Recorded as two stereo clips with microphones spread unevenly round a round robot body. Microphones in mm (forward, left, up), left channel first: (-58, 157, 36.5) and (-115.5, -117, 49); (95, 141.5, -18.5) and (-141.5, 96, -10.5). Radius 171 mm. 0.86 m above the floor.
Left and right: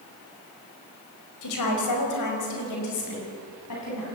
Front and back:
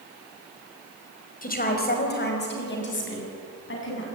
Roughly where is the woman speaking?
Ahead left.